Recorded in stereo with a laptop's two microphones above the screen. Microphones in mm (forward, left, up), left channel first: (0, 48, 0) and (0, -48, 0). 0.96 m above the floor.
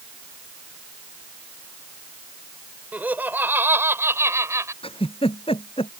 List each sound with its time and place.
2.9 s laughter: 15° right (ahead or behind); by 4.7 s 30° right (ahead or behind)
4.8 s a giggle: 75° left (ahead or behind)